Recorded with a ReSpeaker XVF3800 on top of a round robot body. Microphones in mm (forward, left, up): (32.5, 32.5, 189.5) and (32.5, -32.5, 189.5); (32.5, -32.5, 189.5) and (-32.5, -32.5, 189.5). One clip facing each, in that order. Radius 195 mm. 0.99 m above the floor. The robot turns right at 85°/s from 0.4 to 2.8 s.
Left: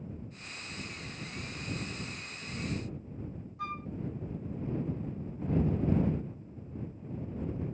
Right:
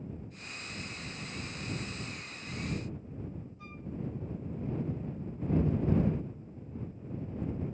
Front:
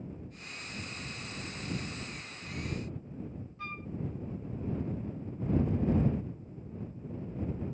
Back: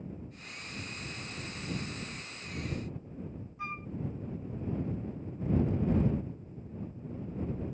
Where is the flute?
105° left.